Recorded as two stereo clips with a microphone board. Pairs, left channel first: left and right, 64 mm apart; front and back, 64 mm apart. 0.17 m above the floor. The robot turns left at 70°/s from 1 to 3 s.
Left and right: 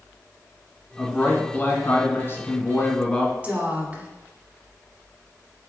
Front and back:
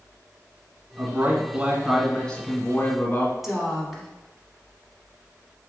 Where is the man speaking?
165° left, 1.4 m; by 3.3 s 25° left, 1.4 m.